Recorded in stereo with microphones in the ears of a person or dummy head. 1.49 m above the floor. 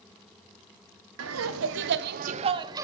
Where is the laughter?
85° right, 0.8 m; by 2.9 s 15° right (ahead or behind), 0.6 m.